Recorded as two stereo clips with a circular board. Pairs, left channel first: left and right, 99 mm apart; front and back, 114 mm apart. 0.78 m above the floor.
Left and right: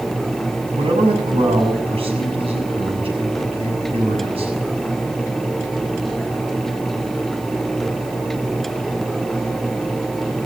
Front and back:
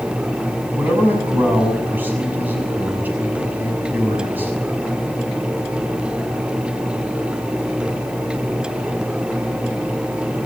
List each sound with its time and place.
0.7 s a man speaking: 105° right, 6.5 m